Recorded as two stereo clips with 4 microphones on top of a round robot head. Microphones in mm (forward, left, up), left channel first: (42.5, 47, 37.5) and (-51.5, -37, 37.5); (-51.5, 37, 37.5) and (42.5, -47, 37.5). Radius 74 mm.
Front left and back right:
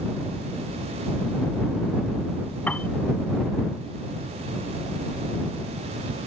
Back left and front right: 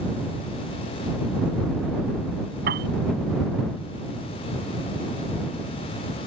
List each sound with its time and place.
2.7 s a piano: 40° right